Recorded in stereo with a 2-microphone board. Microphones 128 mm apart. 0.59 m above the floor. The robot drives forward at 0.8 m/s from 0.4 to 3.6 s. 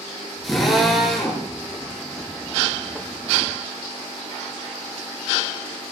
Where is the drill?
Centre (ahead or behind), 7.5 m.